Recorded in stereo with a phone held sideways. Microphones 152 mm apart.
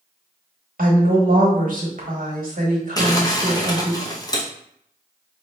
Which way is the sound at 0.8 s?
75° right (ahead or behind).